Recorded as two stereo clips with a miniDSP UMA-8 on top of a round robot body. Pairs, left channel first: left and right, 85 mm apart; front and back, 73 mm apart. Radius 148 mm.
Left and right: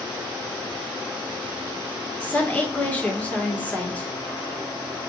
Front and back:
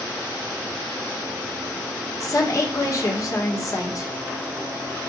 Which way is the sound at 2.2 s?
20° left.